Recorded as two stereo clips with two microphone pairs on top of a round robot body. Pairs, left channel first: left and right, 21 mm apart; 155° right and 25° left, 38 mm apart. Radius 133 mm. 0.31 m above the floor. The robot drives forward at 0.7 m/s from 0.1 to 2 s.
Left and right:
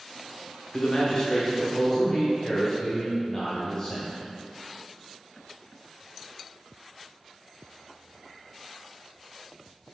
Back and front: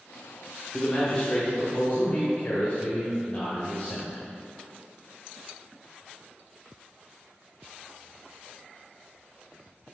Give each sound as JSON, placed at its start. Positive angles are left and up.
{"t": 0.7, "sound": "a man speaking", "azimuth_deg": 125, "distance_m": 1.2}